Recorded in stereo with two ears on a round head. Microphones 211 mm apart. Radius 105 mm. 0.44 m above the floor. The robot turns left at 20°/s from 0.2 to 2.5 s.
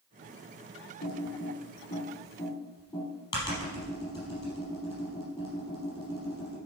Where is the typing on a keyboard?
45° left (ahead or behind), 3.5 m; by 6.6 s 15° left (ahead or behind), 3.5 m.